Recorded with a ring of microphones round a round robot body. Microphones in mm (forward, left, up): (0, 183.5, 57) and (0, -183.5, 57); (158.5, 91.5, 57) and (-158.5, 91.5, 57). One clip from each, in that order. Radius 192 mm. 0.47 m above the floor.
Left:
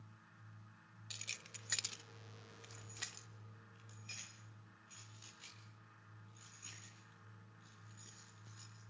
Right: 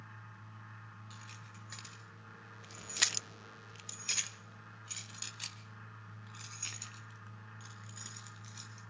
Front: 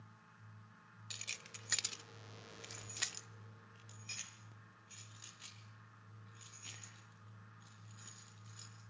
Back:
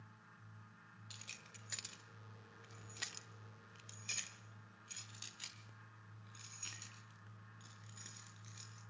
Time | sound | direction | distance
1.1 | keys jangling | 50° left | 1.5 m